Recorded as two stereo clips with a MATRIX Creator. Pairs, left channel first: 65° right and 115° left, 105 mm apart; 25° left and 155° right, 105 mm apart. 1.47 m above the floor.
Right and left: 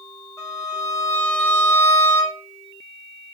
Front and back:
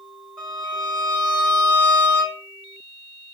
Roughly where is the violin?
Behind right.